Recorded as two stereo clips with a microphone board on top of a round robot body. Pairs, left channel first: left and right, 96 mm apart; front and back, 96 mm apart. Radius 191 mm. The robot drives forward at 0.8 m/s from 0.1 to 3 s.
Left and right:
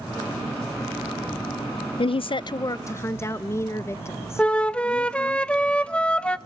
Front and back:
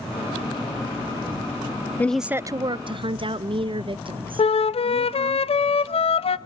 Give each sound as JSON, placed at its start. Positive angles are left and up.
{"t": 2.0, "sound": "a woman speaking", "azimuth_deg": 70, "distance_m": 0.5}
{"t": 4.4, "sound": "a flute", "azimuth_deg": 10, "distance_m": 0.8}